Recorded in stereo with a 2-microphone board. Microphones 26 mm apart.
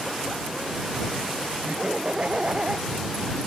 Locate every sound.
1.6 s laughter: 45° right (ahead or behind)